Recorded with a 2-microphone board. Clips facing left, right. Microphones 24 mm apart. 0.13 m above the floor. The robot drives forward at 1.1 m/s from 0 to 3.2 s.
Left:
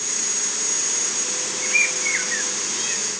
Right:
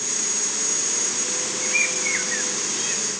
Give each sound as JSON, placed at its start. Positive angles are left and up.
{"t": 1.6, "sound": "a bird", "side_deg": 20, "distance_m": 0.7}